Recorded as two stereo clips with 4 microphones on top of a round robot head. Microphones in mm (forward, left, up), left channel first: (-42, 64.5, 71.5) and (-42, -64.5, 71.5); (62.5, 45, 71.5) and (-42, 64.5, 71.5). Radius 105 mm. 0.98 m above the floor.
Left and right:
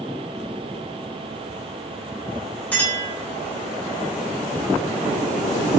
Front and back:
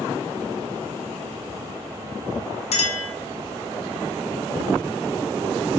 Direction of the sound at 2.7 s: 10° left.